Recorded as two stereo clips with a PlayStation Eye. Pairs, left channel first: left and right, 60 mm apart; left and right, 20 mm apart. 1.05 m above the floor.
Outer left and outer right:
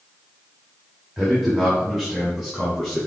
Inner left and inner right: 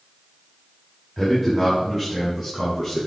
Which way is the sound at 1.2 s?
Centre (ahead or behind).